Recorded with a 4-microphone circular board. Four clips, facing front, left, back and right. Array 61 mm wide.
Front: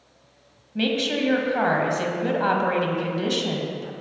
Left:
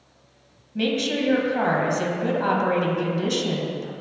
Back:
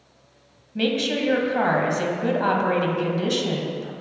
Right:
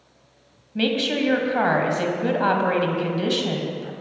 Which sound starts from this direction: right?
A woman speaking, at 0.8 s.